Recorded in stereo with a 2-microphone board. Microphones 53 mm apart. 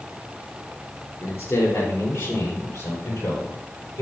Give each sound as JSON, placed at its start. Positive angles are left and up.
{"t": 1.2, "sound": "a man speaking", "side_deg": 70, "distance_m": 3.0}